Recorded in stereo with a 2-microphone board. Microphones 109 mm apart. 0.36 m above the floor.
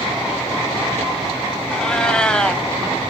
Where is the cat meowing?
10° left (ahead or behind), 1.1 m.